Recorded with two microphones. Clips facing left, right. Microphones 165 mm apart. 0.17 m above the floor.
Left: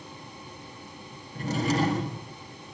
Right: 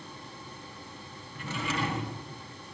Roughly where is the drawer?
Left.